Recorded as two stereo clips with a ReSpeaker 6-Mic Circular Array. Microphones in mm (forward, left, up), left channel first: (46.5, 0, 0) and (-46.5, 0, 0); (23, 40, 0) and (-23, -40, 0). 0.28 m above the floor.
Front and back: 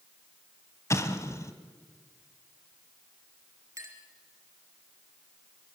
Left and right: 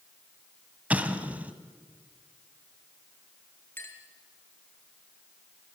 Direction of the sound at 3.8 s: 125° left.